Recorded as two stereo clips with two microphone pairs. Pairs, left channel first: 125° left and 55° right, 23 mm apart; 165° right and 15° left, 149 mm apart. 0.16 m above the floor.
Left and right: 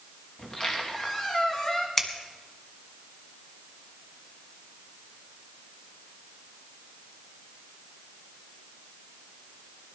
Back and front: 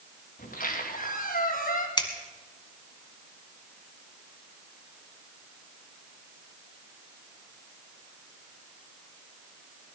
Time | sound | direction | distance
0.4 | a squeak | straight behind | 3.5 m
2.0 | scissors | straight behind | 1.8 m